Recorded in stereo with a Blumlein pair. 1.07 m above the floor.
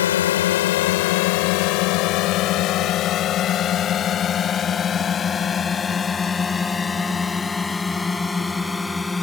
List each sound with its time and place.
0.0 s a drone: 60° left; by 9.2 s 10° left